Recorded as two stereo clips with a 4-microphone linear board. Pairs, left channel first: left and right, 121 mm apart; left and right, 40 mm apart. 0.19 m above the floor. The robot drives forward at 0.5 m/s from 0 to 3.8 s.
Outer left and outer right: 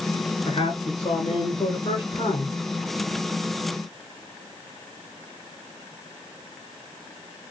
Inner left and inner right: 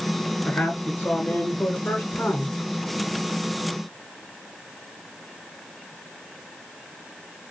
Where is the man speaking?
40° left (ahead or behind), 2.5 m; by 2.5 s 55° left (ahead or behind), 1.9 m.